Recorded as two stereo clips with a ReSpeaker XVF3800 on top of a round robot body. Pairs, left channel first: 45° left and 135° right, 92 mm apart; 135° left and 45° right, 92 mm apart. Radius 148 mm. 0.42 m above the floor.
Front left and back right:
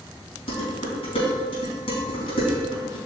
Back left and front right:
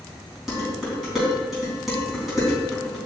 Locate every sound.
0.5 s dishes clattering: 45° left, 3.5 m